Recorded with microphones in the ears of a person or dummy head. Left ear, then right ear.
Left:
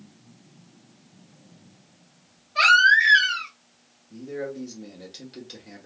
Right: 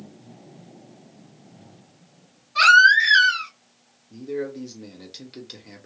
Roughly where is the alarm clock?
No alarm clock in this recording.